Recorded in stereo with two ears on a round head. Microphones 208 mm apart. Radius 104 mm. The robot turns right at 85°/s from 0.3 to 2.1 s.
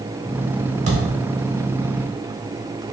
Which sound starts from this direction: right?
A thud, at 0.9 s.